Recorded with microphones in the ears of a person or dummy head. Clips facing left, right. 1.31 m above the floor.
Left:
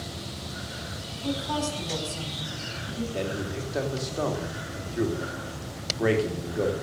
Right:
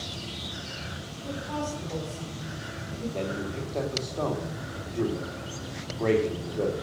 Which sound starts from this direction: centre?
A man speaking, at 3.1 s.